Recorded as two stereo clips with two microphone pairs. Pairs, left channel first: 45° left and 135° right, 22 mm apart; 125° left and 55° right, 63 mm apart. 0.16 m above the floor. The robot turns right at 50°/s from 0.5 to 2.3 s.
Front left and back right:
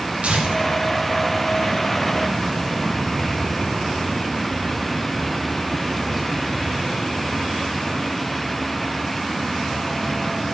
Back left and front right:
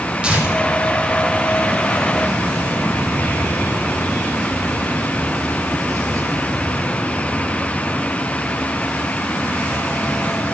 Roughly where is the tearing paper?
Behind right.